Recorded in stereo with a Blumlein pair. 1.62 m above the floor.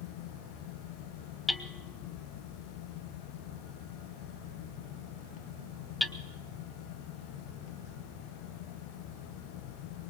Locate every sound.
0.0 s a fan: 45° left, 1.2 m
1.5 s hammering: 10° left, 1.0 m